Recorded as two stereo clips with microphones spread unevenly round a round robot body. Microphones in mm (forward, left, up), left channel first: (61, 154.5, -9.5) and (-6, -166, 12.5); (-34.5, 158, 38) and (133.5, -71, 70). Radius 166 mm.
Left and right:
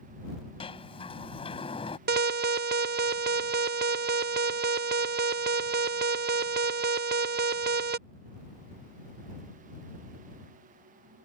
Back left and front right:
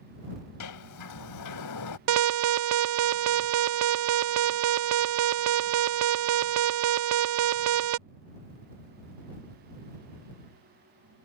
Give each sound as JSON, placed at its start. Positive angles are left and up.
{"t": 0.6, "sound": "a sliding door", "azimuth_deg": 155}
{"t": 2.1, "sound": "an alarm", "azimuth_deg": -45}